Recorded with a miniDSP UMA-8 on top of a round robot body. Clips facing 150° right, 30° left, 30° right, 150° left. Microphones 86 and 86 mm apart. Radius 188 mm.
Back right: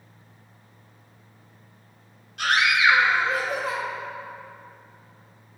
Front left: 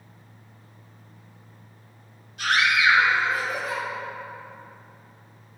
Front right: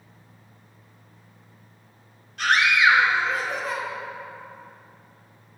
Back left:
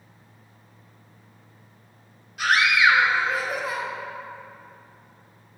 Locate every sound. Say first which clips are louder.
2.4 s a scream: back right 1 dB, even; 130° right, 2.5 m